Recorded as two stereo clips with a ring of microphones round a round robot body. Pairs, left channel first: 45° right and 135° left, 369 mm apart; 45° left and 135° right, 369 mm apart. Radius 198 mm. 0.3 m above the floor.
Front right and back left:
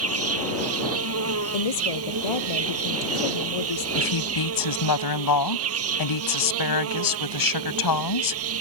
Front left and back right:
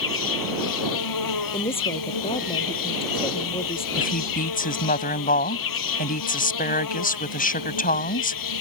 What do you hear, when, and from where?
0.0 s an insect: 80° left
1.5 s a woman speaking: 30° right
4.0 s a woman speaking: 20° right